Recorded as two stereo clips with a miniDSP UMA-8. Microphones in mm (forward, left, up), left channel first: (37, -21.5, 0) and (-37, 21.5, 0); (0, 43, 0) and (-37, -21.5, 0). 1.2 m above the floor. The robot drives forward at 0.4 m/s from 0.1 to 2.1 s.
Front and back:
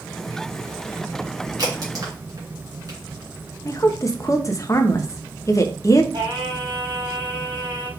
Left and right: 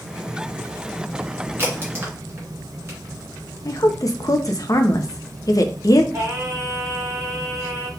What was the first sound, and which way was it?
A crack, 175° right.